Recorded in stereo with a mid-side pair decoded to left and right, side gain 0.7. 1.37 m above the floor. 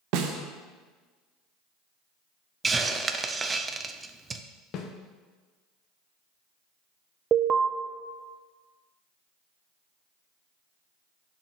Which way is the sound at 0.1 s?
65° right.